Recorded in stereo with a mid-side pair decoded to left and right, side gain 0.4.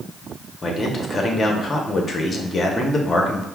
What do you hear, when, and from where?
0.6 s a man speaking: 40° left, 0.9 m